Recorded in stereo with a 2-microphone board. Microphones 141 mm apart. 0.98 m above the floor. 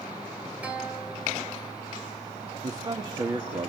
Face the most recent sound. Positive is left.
turn(degrees=-30)  # may be behind; listen again after turning